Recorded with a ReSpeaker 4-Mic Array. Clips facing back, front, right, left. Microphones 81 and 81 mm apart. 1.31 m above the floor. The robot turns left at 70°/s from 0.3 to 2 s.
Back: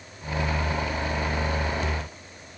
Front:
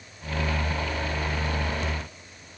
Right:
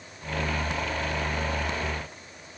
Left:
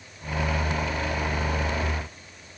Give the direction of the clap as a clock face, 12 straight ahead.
No clap in this recording.